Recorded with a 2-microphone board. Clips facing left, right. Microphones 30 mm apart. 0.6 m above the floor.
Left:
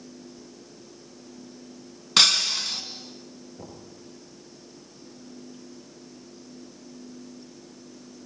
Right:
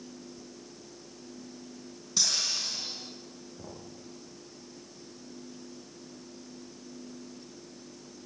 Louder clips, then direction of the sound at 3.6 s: Left 2 dB; 25° left (ahead or behind).